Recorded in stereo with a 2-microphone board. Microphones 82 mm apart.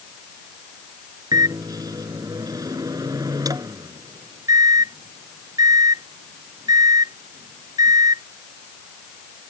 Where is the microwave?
50° right (ahead or behind).